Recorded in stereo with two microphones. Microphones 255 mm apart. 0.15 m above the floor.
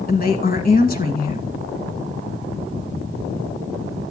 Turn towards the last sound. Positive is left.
turn(degrees=35)  # may be behind; listen again after turning